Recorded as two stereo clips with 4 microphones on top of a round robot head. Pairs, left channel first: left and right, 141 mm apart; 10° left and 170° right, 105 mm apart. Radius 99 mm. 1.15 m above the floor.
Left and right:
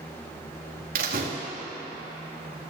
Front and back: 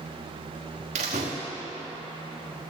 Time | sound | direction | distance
0.9 | a door slam | 130° right | 1.2 m